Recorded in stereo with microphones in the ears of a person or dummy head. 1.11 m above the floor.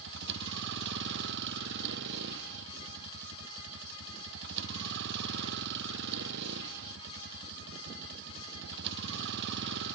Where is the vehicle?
65° right (ahead or behind).